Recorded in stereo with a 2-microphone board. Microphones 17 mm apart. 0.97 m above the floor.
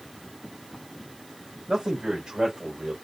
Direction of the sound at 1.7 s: 60° right (ahead or behind).